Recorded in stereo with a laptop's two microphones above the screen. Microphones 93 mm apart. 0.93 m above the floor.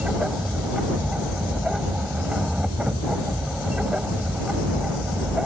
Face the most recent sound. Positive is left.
turn(degrees=-10)  # may be behind; listen again after turning